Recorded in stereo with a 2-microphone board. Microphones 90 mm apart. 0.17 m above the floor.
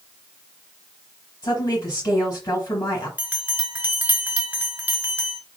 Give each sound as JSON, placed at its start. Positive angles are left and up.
{"t": 1.4, "sound": "a woman speaking", "side_deg": 40, "distance_m": 3.0}
{"t": 3.2, "sound": "a bell", "side_deg": -15, "distance_m": 0.9}